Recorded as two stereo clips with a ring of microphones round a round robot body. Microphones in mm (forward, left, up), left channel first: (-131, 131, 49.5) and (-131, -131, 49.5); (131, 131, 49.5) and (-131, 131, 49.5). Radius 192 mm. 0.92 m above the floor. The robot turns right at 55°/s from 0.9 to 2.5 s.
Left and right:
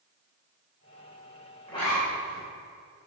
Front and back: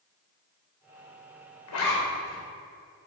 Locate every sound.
1.7 s a zipper: 10° left, 3 m; by 2.4 s 45° left, 3 m